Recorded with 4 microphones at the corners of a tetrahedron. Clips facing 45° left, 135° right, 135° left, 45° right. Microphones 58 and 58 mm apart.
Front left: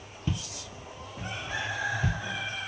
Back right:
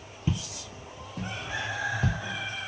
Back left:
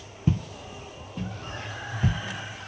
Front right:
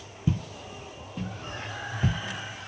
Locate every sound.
0.3 s footsteps: 155° left, 0.5 m; by 2.2 s 110° right, 1.4 m